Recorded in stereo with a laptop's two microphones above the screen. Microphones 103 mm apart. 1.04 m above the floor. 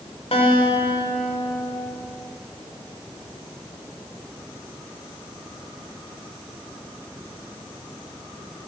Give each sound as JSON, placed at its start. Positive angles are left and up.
{"t": 0.3, "sound": "a guitar", "side_deg": 75, "distance_m": 2.5}